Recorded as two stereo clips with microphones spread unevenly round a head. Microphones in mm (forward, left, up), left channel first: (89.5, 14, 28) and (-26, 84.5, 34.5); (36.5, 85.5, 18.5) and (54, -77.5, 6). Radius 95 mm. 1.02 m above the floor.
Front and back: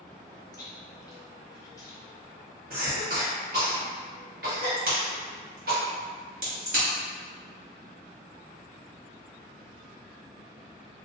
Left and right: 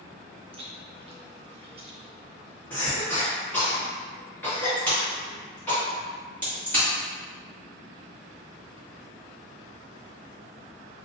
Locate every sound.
0.5 s chewing: 75° right, 0.8 m
2.7 s a cough: straight behind, 1.4 m
4.8 s a crack: 175° left, 1.8 m